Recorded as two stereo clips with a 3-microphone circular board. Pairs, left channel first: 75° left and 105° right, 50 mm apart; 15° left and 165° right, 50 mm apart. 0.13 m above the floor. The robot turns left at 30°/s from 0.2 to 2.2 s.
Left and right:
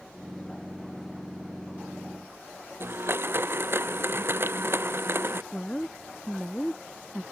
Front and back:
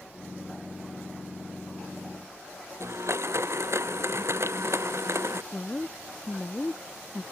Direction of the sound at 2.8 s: 145° right.